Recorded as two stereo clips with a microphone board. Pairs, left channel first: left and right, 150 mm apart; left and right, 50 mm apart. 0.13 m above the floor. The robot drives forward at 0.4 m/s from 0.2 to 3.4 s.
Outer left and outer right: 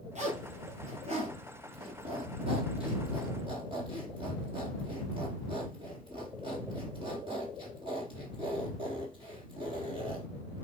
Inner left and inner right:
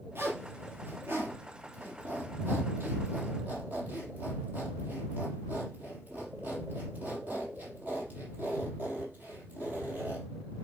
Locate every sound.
0.1 s a zipper: 45° right (ahead or behind), 2.5 m; by 10.3 s 35° right (ahead or behind), 3.5 m